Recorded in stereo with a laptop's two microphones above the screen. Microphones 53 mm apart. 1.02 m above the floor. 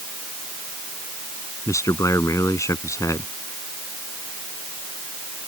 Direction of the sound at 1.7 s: 75° left (ahead or behind).